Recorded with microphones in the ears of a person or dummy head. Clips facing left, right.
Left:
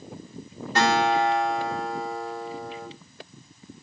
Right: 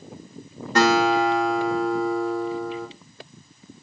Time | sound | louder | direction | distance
0.8 | a guitar | right 3 dB | 55° right (ahead or behind) | 2.5 m